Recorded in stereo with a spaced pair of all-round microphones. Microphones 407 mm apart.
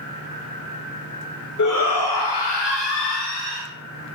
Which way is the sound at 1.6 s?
45° left (ahead or behind).